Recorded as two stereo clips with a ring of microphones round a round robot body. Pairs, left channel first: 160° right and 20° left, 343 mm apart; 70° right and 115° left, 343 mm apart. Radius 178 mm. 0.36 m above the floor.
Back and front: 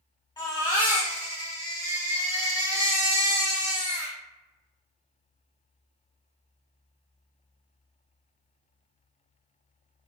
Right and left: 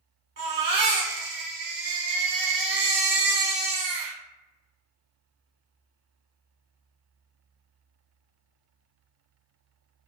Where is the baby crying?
135° left, 0.9 m.